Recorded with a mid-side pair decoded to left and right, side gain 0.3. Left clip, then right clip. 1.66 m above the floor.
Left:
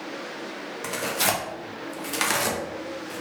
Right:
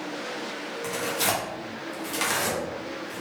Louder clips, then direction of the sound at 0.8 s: Left 2 dB; 55° left.